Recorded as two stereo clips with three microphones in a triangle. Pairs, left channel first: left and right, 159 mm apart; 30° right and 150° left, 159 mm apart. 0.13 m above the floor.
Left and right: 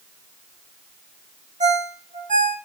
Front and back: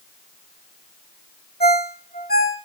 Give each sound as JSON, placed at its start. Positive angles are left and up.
{"t": 1.6, "sound": "a ringtone", "azimuth_deg": -50, "distance_m": 3.0}